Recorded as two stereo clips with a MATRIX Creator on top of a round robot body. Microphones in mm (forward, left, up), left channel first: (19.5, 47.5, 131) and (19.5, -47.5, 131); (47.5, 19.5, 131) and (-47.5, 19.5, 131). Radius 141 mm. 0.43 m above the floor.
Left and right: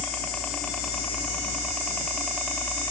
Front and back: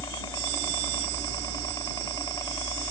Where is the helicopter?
15° left.